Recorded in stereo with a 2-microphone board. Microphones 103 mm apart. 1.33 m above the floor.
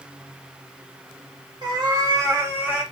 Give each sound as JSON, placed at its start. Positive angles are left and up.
{"t": 1.6, "sound": "a cat meowing", "side_deg": -40, "distance_m": 0.9}